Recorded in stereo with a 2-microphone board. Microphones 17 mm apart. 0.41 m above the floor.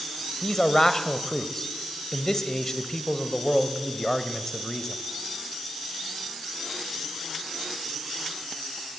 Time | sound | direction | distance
0.4 | a man speaking | 25° left (ahead or behind) | 1.6 m